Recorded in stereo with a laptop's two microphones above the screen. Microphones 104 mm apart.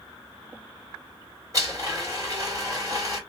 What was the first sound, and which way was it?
A blender, 30° right (ahead or behind).